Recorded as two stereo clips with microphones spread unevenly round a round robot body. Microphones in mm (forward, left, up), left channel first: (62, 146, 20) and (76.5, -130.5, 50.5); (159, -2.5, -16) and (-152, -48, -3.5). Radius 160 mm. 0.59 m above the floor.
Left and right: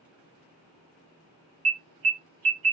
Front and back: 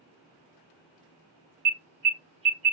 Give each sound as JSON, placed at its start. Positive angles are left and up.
{"t": 1.6, "sound": "an alarm", "azimuth_deg": -105, "distance_m": 1.1}